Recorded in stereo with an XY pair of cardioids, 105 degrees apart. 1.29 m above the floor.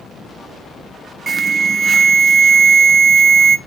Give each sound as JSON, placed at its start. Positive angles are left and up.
{"t": 1.3, "sound": "an alarm", "azimuth_deg": -35, "distance_m": 0.6}